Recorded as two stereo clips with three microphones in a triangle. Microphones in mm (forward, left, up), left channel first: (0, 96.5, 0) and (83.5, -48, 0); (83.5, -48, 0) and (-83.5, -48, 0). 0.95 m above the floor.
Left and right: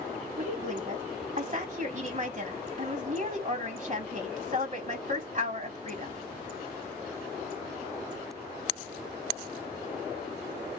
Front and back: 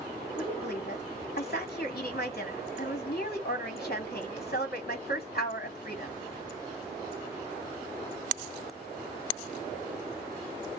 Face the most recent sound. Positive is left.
turn(degrees=-20)